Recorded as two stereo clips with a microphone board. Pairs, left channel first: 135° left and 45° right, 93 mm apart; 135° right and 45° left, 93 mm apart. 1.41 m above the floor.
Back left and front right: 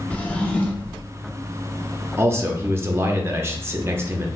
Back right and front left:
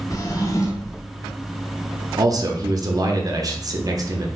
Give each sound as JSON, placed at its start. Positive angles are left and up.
{"t": 0.1, "sound": "a drawer", "azimuth_deg": -160, "distance_m": 0.6}
{"t": 2.2, "sound": "a man speaking", "azimuth_deg": 10, "distance_m": 0.6}